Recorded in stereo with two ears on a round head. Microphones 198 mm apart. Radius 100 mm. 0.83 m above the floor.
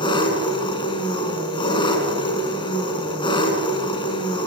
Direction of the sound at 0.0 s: 20° left (ahead or behind).